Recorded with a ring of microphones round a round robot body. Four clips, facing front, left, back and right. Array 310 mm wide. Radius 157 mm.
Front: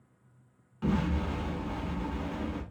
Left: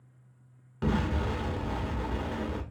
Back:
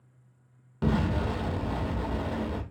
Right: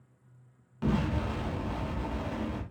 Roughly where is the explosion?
Behind.